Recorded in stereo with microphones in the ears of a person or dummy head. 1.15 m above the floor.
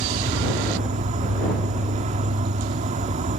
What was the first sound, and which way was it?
An insect, 40° right (ahead or behind).